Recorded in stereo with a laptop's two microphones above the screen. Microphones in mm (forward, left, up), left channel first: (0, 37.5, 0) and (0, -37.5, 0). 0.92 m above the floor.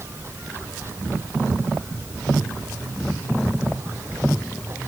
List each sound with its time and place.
0.0 s running water: 35° right (ahead or behind)